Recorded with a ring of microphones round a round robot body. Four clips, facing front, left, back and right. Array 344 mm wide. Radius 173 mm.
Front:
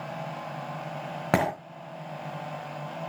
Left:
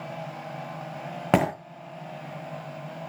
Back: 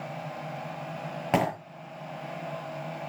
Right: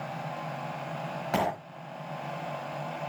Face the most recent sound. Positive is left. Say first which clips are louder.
# left 6 dB, front 1 dB
turn(degrees=70)